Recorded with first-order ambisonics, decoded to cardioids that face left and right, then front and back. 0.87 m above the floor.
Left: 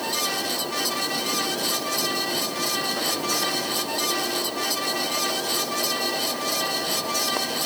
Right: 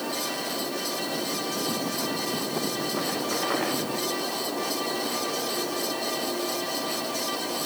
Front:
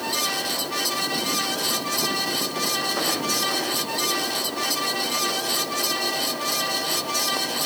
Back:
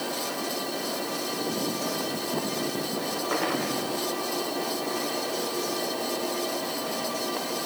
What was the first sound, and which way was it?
Only background noise.